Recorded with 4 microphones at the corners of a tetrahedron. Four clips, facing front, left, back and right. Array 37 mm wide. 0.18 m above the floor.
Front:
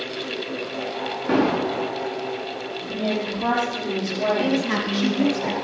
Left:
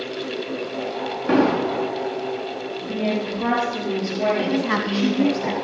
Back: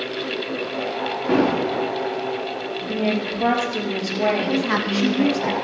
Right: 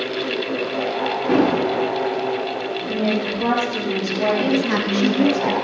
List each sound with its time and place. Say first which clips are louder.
1.3 s an explosion: even, back 1 dB; 105° left, 6 m
2.8 s a woman speaking: right 2 dB, back 2 dB; 160° left, 4.5 m
4.4 s a woman speaking: right 2 dB, back 1 dB; 135° left, 1.5 m